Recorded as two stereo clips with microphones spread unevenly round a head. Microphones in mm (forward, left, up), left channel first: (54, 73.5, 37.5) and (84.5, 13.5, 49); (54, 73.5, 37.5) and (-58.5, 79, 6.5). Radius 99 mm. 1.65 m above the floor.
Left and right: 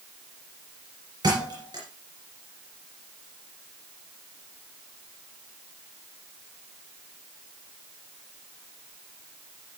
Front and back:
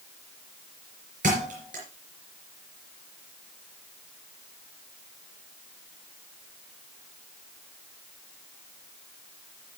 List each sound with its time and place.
1.2 s a thud: 125° right, 3.5 m